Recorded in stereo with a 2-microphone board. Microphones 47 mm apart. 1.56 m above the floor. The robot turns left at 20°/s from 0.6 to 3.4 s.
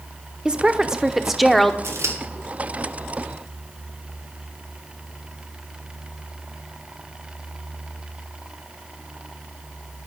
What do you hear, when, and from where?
0.5 s a woman speaking: 20° right (ahead or behind), 0.9 m; by 1.7 s 5° left (ahead or behind), 0.9 m
1.8 s scissors: 60° right (ahead or behind), 2.5 m; by 2.2 s 65° right (ahead or behind), 2.5 m